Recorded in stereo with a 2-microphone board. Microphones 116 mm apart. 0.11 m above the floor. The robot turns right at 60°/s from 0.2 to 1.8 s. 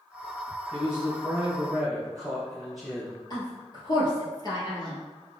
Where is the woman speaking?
40° left (ahead or behind), 1.8 m.